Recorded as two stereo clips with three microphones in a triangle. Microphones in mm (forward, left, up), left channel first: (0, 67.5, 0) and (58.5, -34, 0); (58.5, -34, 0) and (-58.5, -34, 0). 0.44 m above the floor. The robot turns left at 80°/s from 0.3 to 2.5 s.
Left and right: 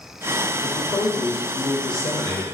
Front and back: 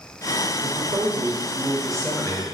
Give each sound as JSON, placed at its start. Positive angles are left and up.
{"t": 0.6, "sound": "a man speaking", "azimuth_deg": -165, "distance_m": 1.6}